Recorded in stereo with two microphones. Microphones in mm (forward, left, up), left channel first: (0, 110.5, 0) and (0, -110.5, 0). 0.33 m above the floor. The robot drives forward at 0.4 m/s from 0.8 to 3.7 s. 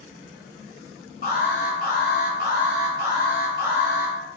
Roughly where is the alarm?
Left.